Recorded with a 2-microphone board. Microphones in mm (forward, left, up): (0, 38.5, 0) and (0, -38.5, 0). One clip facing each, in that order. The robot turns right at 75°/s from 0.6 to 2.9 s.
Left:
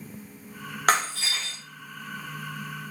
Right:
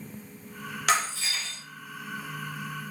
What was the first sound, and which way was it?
Breaking glass, 50° left.